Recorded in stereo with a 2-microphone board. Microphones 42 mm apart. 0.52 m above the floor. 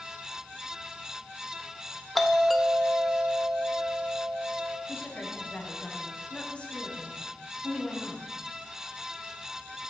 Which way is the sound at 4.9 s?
30° left (ahead or behind).